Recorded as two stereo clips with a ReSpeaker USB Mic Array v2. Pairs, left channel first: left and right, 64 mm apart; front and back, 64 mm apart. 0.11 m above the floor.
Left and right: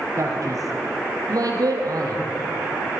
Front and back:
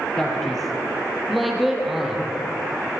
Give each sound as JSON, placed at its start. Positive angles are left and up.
{"t": 0.2, "sound": "a man speaking", "azimuth_deg": -80, "distance_m": 3.0}